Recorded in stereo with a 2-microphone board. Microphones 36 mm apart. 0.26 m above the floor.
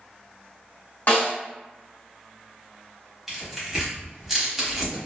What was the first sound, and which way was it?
A snare drum, 50° left (ahead or behind).